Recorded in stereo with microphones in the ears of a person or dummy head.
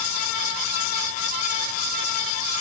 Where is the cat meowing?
I don't hear a cat meowing.